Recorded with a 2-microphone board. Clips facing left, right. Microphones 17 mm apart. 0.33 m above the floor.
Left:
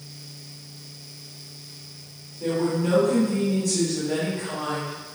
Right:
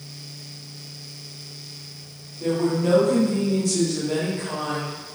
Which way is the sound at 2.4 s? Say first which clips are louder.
Right 2 dB; 25° right (ahead or behind).